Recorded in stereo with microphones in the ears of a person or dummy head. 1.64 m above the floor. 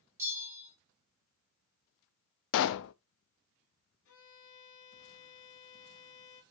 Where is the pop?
70° left (ahead or behind), 0.6 m.